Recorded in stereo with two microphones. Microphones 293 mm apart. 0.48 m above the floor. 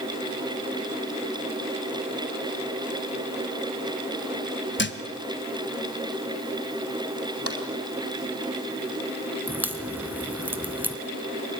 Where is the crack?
5° right (ahead or behind), 1.8 m.